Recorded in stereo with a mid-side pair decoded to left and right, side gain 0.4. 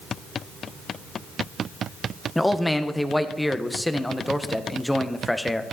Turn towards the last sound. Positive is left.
turn(degrees=10)